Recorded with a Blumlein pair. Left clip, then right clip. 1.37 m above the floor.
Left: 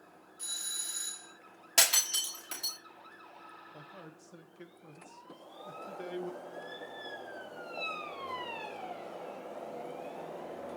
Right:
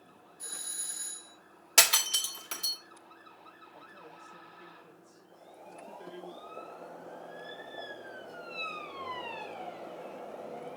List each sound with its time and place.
0.4 s a doorbell: 60° left, 4 m
1.8 s breaking glass: 10° right, 1.8 m
3.7 s a man speaking: 40° left, 1.6 m
5.3 s boiling: 40° left, 3.5 m